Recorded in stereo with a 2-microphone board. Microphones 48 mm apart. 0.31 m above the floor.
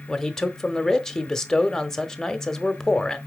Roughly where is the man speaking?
Centre.